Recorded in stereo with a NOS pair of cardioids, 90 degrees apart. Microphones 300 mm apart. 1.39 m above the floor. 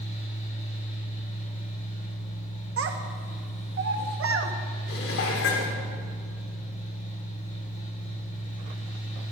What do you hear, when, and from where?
0.0 s a fan: 25° left, 5.5 m
2.8 s a child speaking: 45° right, 1.7 m
4.9 s dishes clattering: 50° left, 3 m